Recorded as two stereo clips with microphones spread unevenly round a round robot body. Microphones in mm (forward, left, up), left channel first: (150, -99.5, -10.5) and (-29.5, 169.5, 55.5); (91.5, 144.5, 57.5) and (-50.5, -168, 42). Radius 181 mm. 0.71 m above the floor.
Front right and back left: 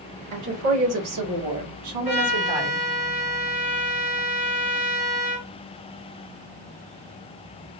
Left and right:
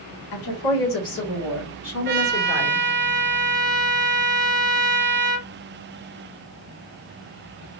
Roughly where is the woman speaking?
Left.